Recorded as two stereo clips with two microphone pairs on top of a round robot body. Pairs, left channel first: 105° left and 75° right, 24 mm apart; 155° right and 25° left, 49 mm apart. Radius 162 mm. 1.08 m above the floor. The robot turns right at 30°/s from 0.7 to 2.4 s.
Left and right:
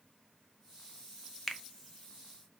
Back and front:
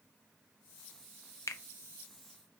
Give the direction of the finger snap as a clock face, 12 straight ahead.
6 o'clock.